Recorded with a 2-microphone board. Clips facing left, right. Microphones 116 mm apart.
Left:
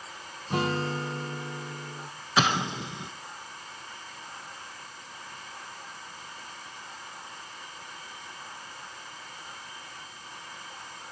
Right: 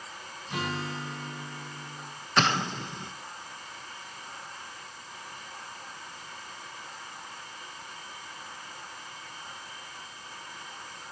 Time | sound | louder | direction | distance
0.5 | a guitar | left 6 dB | 40° left (ahead or behind) | 1.6 m
2.4 | an explosion | left 1 dB | 5° left (ahead or behind) | 0.7 m